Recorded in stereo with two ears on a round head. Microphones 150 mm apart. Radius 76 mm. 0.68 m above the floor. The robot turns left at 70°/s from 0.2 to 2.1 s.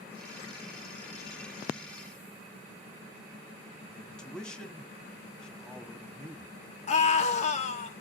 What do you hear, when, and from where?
3.9 s a man speaking: 5° left (ahead or behind), 1.5 m
6.9 s a scream: 45° left (ahead or behind), 1.4 m